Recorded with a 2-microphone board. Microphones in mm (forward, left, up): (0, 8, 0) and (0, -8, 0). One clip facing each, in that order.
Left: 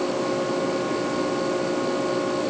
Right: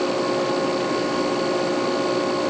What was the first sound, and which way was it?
Only background noise.